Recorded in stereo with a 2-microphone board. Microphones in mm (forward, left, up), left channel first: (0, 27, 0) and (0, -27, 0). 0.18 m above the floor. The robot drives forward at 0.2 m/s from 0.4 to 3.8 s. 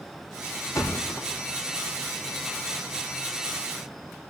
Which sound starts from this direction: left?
A thud, at 0.8 s.